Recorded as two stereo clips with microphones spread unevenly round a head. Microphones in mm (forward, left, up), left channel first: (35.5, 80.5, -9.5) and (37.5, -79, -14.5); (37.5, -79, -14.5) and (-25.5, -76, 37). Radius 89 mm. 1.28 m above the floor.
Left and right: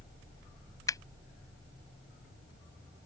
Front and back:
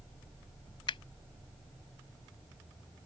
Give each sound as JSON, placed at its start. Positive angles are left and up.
{"t": 0.9, "sound": "a finger snap", "azimuth_deg": 20}